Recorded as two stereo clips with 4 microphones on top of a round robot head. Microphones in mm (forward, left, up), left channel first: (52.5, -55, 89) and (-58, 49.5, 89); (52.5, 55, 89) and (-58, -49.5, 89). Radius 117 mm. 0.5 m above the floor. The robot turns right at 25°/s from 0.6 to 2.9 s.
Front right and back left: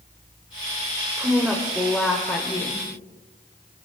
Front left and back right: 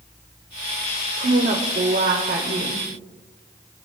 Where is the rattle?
I don't hear a rattle.